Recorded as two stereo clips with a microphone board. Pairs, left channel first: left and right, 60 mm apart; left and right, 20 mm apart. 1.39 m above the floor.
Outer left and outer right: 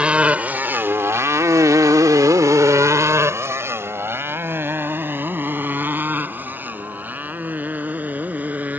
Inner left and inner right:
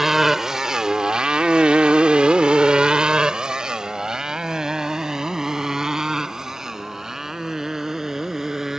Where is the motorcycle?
20° right (ahead or behind); by 8.8 s 25° right (ahead or behind).